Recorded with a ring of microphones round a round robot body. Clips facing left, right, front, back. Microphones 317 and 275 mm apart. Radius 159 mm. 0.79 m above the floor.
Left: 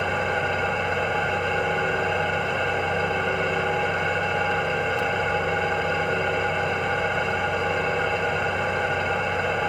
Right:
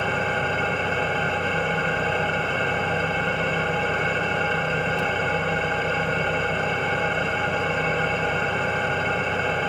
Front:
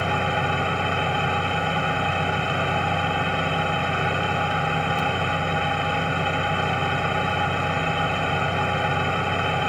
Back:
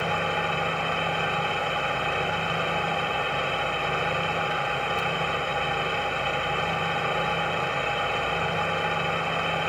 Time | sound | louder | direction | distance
0.0 | an engine running | even, front 3 dB | straight ahead | 1.8 m